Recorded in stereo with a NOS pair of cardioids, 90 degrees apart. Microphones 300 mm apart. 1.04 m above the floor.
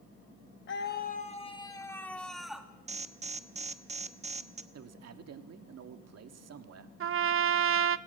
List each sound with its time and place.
0.7 s a scream: 40° left, 1.1 m; by 2.7 s 5° right, 1.8 m
2.9 s an alarm: 20° right, 1.2 m
4.7 s a man speaking: 55° right, 1.7 m
7.0 s a trumpet: 45° right, 0.7 m